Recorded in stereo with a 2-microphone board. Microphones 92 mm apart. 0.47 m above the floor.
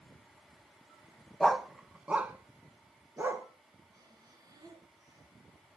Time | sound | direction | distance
1.4 | a dog barking | centre (ahead or behind) | 0.8 m
3.9 | breathing | 40° right (ahead or behind) | 3.5 m